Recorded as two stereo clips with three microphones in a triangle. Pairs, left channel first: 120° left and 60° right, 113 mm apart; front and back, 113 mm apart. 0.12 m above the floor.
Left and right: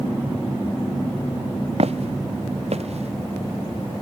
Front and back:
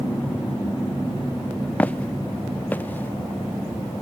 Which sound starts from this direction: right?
Footsteps, at 1.8 s.